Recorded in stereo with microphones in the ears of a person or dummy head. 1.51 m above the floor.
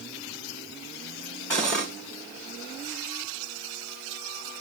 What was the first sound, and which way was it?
Cutlery clinking, 10° left (ahead or behind).